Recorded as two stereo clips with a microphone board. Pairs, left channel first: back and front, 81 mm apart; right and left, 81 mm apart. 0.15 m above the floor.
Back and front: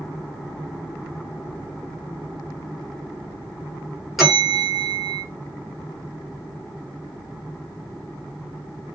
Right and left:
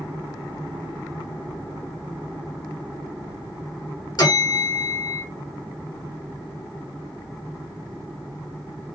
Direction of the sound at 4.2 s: 90° right.